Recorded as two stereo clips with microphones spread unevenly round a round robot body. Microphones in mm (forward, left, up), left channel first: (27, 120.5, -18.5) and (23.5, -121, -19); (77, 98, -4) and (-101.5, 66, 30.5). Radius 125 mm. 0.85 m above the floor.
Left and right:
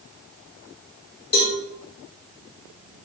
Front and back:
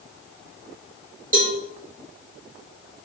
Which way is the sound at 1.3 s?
145° left.